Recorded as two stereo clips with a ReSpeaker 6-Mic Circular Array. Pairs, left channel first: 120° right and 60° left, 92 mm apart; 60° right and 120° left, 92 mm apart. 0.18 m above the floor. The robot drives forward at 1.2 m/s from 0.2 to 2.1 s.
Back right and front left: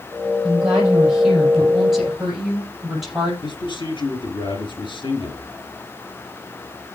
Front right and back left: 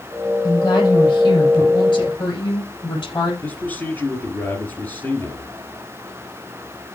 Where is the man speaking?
130° right, 3.5 m.